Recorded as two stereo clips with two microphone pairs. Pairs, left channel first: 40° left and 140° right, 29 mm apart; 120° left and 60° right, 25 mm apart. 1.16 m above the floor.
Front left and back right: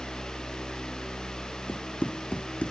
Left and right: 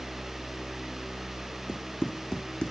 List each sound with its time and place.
1.7 s running footsteps: 65° left